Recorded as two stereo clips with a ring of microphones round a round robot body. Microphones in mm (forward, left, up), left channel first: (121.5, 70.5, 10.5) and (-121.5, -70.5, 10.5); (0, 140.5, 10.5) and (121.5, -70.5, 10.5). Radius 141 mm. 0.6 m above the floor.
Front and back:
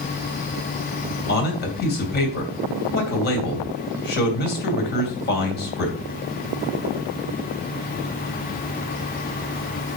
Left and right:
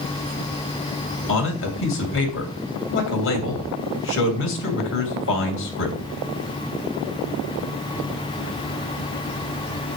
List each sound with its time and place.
1.3 s a man speaking: 85° left, 2.5 m